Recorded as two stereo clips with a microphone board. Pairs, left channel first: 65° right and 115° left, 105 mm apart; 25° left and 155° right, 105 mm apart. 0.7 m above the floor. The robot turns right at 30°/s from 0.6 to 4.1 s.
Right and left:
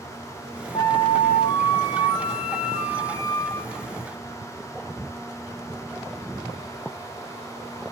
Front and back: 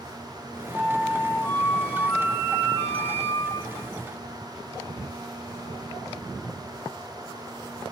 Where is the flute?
80° right, 1.5 m; by 3.9 s 15° left, 1.5 m.